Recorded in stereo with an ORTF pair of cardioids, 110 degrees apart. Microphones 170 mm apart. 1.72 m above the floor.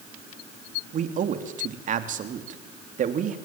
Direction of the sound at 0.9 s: 50° right.